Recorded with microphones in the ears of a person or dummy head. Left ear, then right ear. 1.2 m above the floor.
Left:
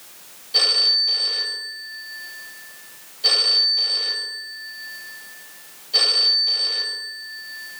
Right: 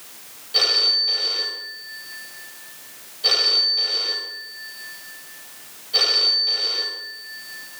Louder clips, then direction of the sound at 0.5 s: Left 1 dB; 10° left (ahead or behind).